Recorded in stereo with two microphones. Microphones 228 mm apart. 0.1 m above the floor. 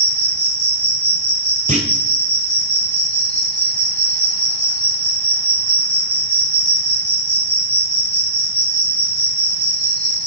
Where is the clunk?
35° right (ahead or behind), 1.5 m.